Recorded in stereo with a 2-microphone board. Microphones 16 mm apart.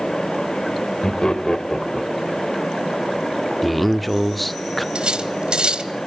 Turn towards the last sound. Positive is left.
turn(degrees=-65)  # may be behind; listen again after turning